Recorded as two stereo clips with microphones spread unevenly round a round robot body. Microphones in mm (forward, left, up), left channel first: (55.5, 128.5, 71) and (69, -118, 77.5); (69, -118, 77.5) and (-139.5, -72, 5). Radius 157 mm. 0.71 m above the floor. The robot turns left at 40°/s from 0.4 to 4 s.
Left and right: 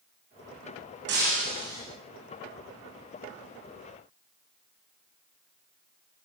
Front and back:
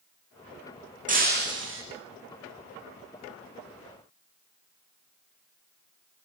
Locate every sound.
1.1 s breaking glass: 140° right, 9.5 m; by 1.8 s 170° right, 9.5 m